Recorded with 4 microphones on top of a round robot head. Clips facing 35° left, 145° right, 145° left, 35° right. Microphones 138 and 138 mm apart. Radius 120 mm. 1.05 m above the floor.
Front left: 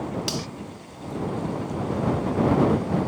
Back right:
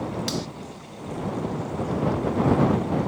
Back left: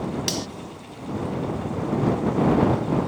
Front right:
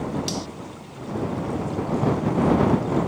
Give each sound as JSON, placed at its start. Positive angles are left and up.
{"t": 0.3, "sound": "cutlery clinking", "azimuth_deg": 115}